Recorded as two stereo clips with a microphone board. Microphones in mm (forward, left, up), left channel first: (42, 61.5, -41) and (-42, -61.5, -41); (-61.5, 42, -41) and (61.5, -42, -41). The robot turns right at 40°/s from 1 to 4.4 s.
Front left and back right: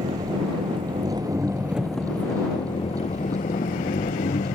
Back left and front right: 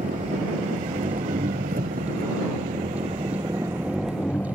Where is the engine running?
70° right; by 4.5 s 65° left.